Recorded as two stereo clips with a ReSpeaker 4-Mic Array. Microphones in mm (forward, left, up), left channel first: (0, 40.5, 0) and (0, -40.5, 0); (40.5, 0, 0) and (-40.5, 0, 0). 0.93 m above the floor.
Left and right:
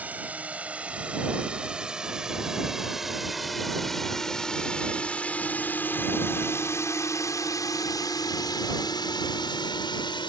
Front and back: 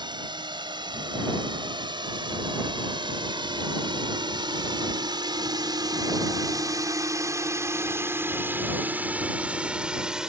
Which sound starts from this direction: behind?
A drone, at 0.0 s.